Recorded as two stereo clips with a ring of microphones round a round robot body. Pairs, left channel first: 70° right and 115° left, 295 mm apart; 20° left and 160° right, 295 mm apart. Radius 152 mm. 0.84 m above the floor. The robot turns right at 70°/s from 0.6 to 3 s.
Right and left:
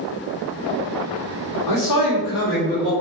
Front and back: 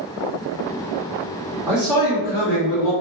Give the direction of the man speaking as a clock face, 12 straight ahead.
3 o'clock.